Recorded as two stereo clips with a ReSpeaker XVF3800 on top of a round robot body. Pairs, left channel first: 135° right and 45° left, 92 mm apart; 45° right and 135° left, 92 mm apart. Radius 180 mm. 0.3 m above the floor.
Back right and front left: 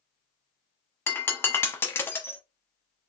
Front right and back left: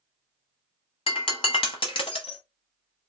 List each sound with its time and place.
1.1 s breaking glass: 70° right, 1.0 m